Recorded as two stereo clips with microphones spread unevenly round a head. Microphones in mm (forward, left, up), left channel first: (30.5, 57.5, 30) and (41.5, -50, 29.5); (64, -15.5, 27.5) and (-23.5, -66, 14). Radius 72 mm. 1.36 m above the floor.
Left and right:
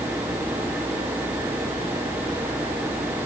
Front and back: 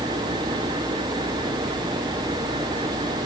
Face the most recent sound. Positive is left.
No sound to turn to.